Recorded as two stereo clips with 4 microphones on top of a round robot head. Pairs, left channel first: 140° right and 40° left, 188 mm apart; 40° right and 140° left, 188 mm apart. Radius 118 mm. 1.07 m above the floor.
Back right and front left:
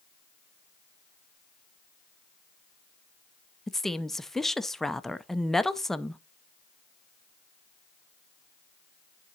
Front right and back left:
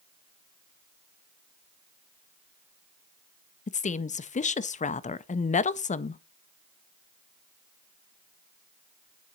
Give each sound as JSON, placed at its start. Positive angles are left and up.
{"t": 3.7, "sound": "a woman speaking", "azimuth_deg": -55, "distance_m": 0.6}